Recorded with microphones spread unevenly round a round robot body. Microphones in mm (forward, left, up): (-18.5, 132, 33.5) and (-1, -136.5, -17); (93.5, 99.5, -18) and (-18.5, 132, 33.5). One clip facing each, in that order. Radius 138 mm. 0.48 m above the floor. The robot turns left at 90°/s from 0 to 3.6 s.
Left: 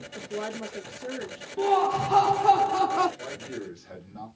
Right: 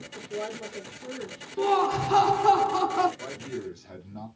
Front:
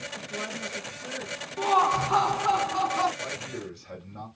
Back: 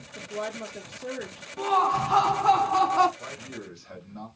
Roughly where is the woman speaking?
Behind.